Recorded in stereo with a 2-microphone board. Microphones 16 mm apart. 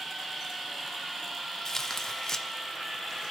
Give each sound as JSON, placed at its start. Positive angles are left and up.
{"t": 1.6, "sound": "tearing paper", "side_deg": 35, "distance_m": 0.9}